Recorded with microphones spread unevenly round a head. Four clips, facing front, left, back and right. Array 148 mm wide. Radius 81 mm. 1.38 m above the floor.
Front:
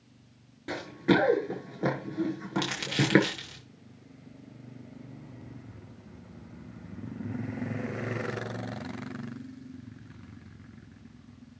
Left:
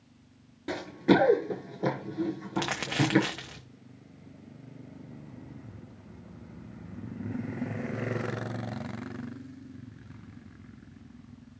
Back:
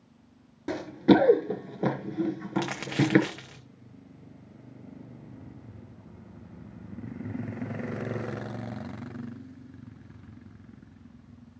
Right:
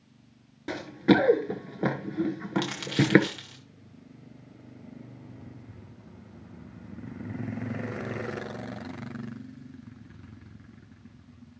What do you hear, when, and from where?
0.7 s running footsteps: 175° left, 1.5 m; by 3.3 s 65° right, 1.6 m
2.5 s crumpling: 115° left, 0.9 m